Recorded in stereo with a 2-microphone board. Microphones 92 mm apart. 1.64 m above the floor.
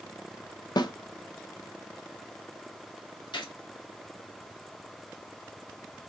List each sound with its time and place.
0.8 s a snare drum: 50° left (ahead or behind), 1.0 m
3.3 s a gunshot: 60° left (ahead or behind), 2.0 m